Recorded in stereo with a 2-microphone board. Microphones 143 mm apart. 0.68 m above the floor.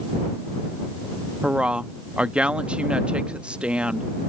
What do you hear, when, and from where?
1.4 s a woman speaking: 10° right (ahead or behind)